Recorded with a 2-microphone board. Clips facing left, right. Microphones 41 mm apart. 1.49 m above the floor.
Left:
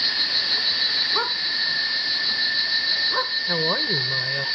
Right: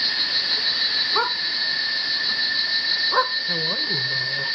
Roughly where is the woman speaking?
Left.